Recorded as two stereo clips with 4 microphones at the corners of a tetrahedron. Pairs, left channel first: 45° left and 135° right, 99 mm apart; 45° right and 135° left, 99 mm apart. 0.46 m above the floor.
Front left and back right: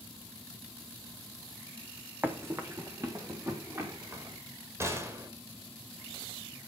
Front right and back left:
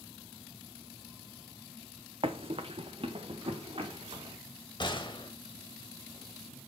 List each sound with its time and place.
2.2 s running footsteps: 155° left, 1.2 m; by 4.4 s 165° left, 4 m
4.8 s a gunshot: 75° right, 2 m